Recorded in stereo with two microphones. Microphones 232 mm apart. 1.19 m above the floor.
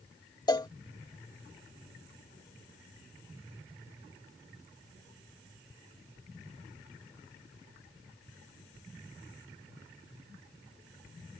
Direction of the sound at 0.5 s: 15° left (ahead or behind).